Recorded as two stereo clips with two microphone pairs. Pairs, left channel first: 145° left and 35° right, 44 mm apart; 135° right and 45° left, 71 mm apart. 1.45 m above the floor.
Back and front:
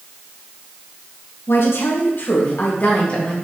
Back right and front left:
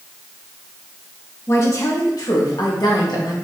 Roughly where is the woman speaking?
Behind.